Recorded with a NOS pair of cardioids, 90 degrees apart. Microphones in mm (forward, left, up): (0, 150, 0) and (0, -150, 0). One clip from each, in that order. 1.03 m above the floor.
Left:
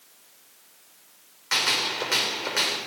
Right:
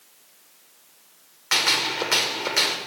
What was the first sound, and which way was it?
A gunshot, 30° right.